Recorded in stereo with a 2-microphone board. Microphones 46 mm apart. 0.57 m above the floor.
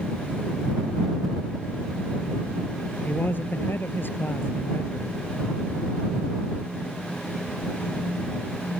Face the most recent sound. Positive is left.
turn(degrees=55)  # may be behind; listen again after turning